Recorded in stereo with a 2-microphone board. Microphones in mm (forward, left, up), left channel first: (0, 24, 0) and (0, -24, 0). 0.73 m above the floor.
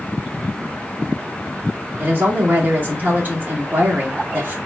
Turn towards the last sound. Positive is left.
turn(degrees=-35)  # may be behind; listen again after turning